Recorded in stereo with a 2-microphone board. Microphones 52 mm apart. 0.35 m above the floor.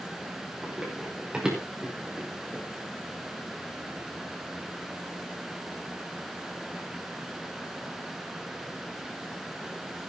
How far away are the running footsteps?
About 8 m.